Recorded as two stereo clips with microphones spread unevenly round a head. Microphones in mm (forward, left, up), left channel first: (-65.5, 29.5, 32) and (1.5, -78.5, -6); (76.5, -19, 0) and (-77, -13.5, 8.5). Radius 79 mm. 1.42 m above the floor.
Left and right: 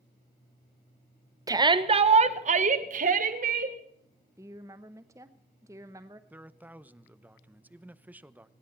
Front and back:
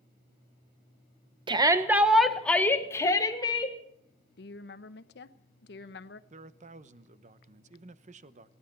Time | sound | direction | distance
1.5 | a shout | 120° right | 1.1 m
4.4 | a woman speaking | 20° left | 0.9 m
6.3 | a man speaking | 145° right | 0.8 m